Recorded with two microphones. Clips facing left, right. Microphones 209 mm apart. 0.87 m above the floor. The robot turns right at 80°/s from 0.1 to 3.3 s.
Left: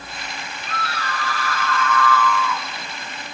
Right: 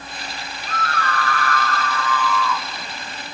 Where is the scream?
135° right, 4 m; by 2.6 s 20° left, 4 m.